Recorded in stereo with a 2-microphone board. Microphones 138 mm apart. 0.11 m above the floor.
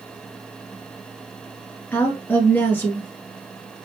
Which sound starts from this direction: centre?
A woman speaking, at 1.9 s.